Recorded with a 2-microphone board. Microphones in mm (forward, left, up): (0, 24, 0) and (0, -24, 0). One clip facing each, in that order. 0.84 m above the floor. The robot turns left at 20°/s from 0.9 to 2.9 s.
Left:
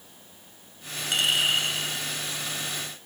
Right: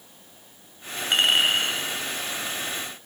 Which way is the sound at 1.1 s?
40° right (ahead or behind).